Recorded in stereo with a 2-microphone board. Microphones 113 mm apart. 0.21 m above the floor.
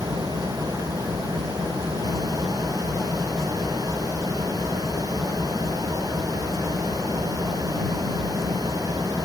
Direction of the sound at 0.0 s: 30° right (ahead or behind).